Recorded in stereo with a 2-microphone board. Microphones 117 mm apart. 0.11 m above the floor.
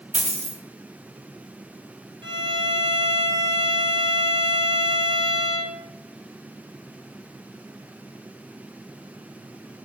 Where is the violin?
50° right (ahead or behind), 0.7 m.